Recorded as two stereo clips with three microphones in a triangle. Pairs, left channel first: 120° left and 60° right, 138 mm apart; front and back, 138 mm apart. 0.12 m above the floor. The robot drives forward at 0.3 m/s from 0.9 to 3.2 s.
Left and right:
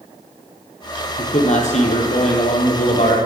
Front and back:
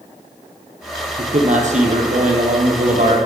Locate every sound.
1.2 s a man speaking: 150° left, 3 m; by 3.2 s 155° left, 3.5 m